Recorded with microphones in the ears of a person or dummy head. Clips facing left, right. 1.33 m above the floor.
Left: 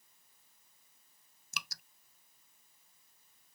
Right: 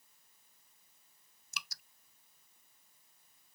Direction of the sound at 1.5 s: 55° left (ahead or behind).